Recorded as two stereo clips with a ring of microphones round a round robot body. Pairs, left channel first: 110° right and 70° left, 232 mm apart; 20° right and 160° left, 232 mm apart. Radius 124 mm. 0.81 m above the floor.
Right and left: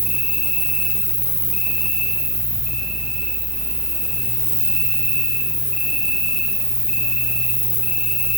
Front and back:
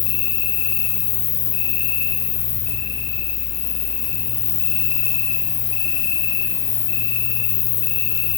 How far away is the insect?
About 4.5 m.